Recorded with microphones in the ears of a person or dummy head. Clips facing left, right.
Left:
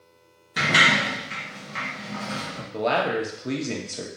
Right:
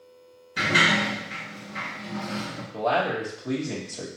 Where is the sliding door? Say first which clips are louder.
Even; 80° left, 1.2 m.